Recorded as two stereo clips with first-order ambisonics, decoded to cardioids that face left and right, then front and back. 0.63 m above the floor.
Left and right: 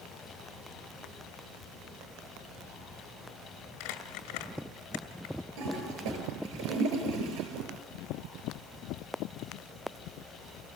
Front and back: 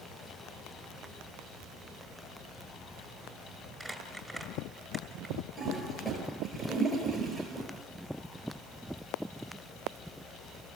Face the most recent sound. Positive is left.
turn(degrees=-85)